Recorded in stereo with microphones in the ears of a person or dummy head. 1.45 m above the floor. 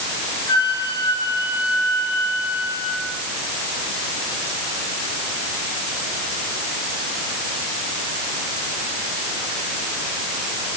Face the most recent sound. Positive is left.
turn(degrees=20)  # may be behind; listen again after turning